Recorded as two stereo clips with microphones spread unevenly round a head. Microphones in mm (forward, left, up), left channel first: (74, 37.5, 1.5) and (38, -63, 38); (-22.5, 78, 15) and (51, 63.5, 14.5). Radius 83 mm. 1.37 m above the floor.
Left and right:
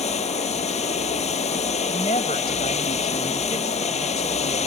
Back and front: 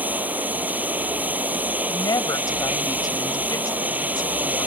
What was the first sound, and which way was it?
Running water, 55° left.